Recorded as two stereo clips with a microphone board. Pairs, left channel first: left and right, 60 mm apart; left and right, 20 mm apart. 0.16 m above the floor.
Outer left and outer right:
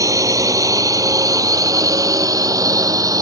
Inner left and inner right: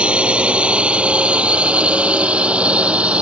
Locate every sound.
0.0 s a drone: 65° right (ahead or behind); by 3.2 s 75° right (ahead or behind)